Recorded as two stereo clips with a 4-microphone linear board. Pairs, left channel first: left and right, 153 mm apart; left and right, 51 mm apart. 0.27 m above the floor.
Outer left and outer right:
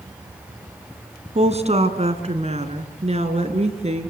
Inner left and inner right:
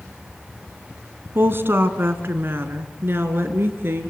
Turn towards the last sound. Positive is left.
turn(degrees=-45)  # may be behind; listen again after turning